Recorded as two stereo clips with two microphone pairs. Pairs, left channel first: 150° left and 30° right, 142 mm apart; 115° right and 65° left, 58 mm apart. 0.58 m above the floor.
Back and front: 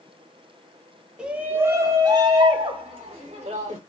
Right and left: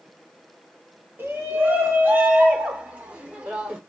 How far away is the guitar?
No guitar in this recording.